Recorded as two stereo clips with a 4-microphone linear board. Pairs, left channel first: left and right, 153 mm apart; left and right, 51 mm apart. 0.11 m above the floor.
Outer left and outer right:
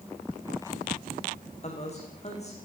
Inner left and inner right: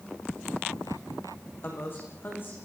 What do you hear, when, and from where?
1.6 s a man speaking: 45° left (ahead or behind), 7.5 m